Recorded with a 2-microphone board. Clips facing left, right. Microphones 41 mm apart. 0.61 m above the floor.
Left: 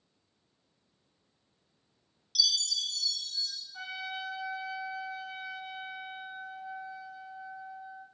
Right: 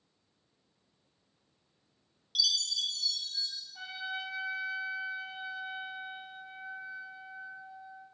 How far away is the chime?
About 0.9 m.